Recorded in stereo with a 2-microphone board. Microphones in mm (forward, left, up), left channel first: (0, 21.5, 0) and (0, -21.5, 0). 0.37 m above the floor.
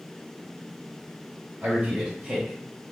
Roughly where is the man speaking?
Right.